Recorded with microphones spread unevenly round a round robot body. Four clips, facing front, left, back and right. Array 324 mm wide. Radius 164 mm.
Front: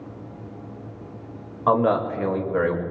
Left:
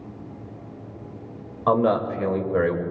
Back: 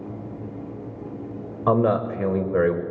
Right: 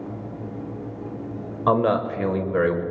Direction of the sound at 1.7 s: 170° right.